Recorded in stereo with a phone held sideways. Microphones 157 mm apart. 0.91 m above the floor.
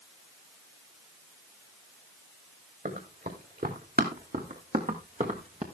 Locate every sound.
2.9 s running footsteps: 70° right (ahead or behind), 3.5 m; by 5.6 s 45° right (ahead or behind), 2.5 m